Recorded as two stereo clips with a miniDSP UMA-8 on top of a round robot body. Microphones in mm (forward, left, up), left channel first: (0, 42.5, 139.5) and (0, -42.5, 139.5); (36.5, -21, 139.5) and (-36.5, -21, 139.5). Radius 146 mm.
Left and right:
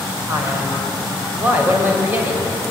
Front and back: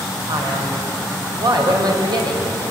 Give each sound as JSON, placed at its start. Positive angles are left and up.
{"t": 0.3, "sound": "a man speaking", "azimuth_deg": -160, "distance_m": 4.5}